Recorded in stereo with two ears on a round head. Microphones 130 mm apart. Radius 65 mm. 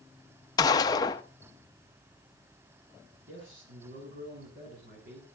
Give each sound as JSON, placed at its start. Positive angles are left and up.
{"t": 0.6, "sound": "a gunshot", "side_deg": 25, "distance_m": 0.6}
{"t": 3.3, "sound": "a man speaking", "side_deg": -80, "distance_m": 8.5}